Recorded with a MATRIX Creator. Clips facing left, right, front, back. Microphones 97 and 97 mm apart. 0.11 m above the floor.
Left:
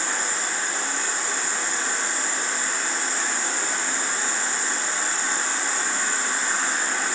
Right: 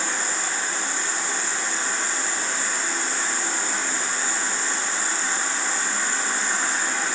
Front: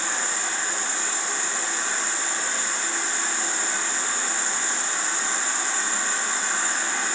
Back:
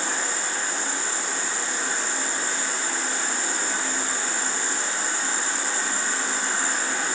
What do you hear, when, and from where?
0.0 s an insect: 175° left, 1.1 m